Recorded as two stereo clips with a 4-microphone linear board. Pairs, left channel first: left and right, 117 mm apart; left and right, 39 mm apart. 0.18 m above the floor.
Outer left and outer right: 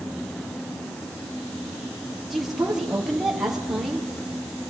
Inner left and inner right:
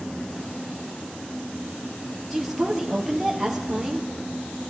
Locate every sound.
2.3 s a woman speaking: centre (ahead or behind), 4 m